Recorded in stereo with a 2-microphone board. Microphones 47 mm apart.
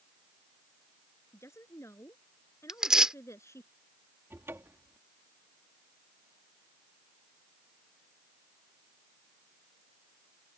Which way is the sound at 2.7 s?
15° right (ahead or behind).